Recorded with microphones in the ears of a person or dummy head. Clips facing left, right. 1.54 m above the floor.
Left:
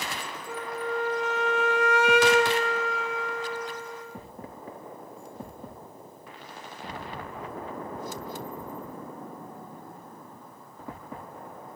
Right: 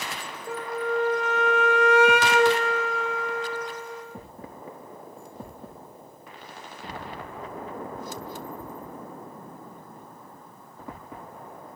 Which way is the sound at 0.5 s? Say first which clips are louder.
Right 4 dB; 50° right (ahead or behind).